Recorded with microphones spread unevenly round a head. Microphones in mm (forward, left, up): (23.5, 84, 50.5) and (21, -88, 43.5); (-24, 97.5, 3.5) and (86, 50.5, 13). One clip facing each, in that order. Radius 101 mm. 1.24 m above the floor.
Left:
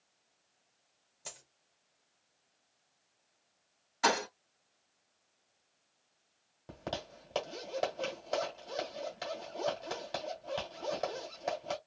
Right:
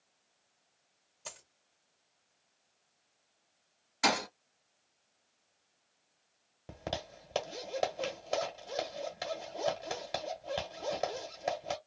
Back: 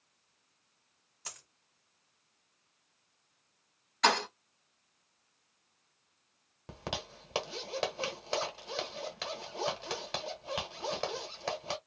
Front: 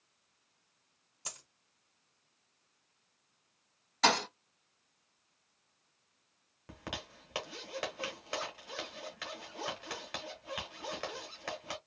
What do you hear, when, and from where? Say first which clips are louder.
1.2 s a dropped coin: right 2 dB, front 1 dB; 10° left, 1.0 m
4.0 s a thud: left 1 dB, back 1 dB; 20° right, 1.5 m
6.7 s a zipper: right 1 dB, back 4 dB; 165° right, 1.0 m